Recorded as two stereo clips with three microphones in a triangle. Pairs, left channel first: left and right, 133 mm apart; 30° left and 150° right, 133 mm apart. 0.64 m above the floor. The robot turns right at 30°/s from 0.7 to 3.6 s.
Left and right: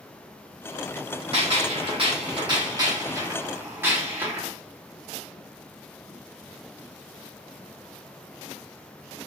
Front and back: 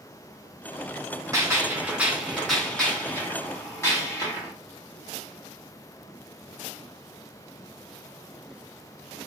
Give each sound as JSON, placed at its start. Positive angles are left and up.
{"t": 1.3, "sound": "a gunshot", "azimuth_deg": -95, "distance_m": 1.2}